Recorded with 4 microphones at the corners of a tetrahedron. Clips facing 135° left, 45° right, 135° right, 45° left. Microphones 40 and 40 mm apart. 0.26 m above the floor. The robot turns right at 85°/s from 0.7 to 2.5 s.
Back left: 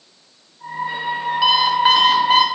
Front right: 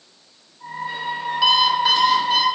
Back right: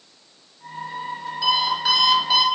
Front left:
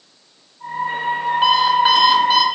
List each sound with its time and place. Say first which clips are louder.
1.4 s an alarm clock: back left 1 dB, front left 6 dB; 55° left, 1.1 m; by 2.5 s 145° left, 1.1 m